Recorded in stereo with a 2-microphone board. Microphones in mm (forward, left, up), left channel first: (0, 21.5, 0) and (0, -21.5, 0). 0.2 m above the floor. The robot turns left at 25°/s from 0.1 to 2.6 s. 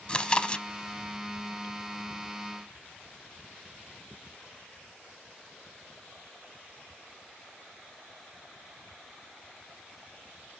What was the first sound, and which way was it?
Chewing, 20° left (ahead or behind).